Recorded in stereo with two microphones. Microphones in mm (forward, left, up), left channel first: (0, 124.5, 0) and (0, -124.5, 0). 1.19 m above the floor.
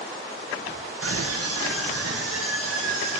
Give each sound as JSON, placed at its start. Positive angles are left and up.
{"t": 1.0, "sound": "a scream", "side_deg": -60, "distance_m": 0.9}